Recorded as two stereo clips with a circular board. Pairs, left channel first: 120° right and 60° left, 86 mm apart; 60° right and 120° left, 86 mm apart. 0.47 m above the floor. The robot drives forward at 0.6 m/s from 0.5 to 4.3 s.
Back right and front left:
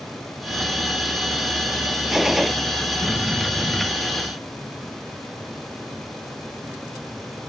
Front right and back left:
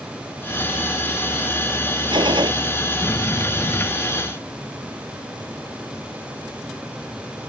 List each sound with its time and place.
2.1 s a gunshot: 145° left